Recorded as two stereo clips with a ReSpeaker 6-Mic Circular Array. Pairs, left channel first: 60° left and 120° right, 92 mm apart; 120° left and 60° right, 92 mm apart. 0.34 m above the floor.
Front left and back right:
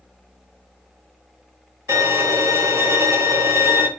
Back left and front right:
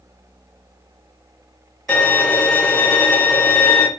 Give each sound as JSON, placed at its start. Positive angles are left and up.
{"t": 1.9, "sound": "a violin", "azimuth_deg": -165, "distance_m": 0.7}